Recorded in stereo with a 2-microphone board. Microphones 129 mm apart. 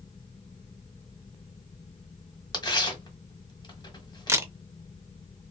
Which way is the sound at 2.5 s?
35° left (ahead or behind).